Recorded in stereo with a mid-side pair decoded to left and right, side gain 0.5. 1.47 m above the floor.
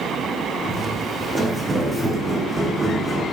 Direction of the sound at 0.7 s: 20° right.